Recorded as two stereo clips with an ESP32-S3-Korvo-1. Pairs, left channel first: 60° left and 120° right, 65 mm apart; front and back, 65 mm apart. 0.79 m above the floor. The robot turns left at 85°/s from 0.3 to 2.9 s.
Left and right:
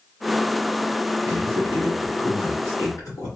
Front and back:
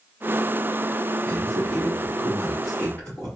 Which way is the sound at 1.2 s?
155° right.